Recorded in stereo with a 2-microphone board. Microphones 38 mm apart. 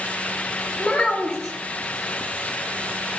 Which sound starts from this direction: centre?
A child speaking, at 0.8 s.